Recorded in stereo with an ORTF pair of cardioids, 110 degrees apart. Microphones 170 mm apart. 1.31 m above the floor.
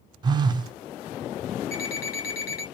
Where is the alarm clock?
65° left, 1.8 m.